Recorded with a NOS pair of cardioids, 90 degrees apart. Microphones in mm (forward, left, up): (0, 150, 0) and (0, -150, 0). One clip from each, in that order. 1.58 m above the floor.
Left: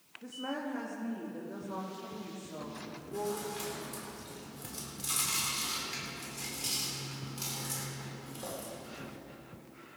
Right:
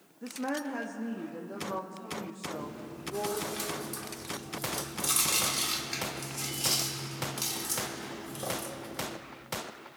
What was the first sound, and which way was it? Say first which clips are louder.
A woman speaking: right 4 dB; 40° right.